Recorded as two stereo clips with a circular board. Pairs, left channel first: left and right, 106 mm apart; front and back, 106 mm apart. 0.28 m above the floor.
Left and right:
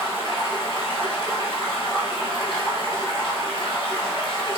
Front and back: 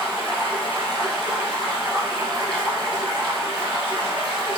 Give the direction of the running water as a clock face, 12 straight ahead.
8 o'clock.